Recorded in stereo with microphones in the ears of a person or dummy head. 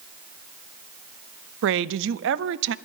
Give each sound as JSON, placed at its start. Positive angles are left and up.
{"t": 1.6, "sound": "a woman speaking", "side_deg": -65, "distance_m": 0.6}